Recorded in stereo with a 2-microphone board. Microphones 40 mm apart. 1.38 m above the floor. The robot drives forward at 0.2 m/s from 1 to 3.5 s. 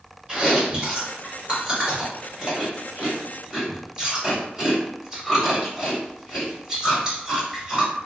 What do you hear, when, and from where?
0.3 s chewing: 20° right (ahead or behind), 1.3 m; by 7.9 s 15° right (ahead or behind), 1.5 m